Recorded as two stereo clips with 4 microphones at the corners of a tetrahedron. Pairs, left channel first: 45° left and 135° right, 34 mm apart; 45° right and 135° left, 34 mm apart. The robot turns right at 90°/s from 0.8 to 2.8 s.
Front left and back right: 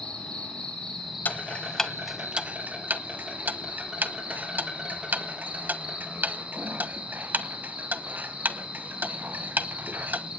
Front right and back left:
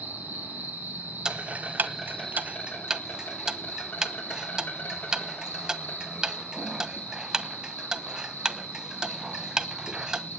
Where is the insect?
110° left, 7 m; by 10.4 s 70° right, 7 m.